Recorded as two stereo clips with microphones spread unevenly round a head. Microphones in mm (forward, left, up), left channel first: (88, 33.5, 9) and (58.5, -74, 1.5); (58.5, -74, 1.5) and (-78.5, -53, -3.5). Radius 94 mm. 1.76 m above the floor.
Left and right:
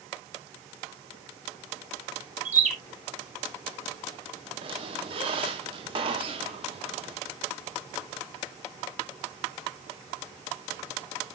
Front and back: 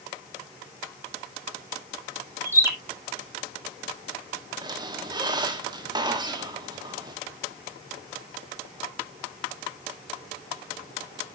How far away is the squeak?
About 1.6 m.